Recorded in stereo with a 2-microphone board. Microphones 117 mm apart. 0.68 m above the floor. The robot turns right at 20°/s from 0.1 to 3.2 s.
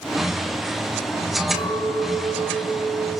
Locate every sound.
1.5 s a clink: 110° left, 6 m; by 3.1 s 145° left, 6 m